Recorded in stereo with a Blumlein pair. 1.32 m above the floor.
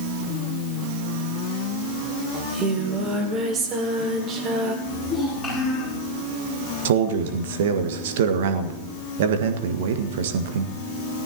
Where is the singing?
25° right, 2 m.